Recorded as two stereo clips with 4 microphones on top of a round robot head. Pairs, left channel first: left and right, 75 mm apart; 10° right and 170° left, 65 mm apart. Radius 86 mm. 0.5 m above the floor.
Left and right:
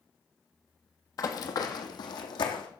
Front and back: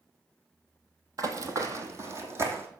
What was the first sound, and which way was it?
Running footsteps, 135° left.